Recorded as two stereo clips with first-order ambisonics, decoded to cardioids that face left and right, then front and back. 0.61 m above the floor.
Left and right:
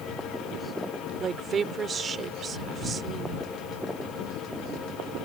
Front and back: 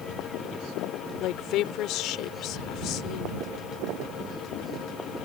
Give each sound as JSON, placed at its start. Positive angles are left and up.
{"t": 1.2, "sound": "a woman speaking", "azimuth_deg": -25}